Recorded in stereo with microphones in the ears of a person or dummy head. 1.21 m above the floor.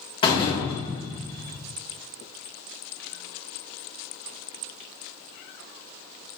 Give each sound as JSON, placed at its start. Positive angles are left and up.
{"t": 0.2, "sound": "a door slam", "side_deg": 25, "distance_m": 2.5}